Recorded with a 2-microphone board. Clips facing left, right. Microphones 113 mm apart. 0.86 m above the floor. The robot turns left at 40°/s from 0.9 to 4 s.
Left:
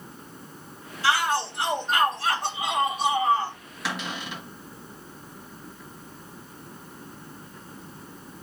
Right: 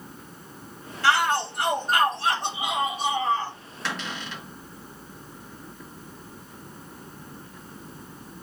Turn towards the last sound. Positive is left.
turn(degrees=10)  # may be behind; listen again after turning